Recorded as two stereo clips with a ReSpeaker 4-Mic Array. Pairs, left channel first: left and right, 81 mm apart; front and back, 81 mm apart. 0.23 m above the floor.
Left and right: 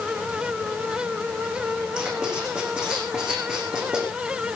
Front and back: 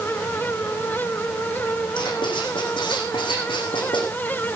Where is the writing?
10° right, 6.5 m.